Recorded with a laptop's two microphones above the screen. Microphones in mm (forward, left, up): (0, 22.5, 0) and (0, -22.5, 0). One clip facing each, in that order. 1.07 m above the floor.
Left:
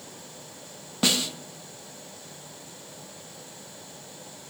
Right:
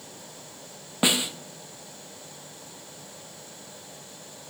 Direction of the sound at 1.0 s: 20° right (ahead or behind).